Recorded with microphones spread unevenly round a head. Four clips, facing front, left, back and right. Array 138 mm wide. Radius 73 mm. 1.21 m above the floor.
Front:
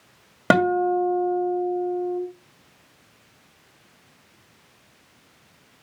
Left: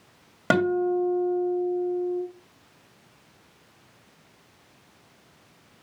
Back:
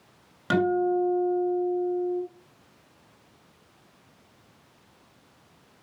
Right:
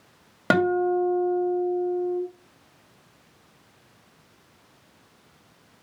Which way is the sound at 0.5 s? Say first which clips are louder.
Right 1 dB, front 4 dB; 5° right.